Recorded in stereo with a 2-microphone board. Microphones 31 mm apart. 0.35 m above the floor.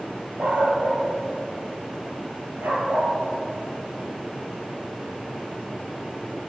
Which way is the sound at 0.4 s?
80° right.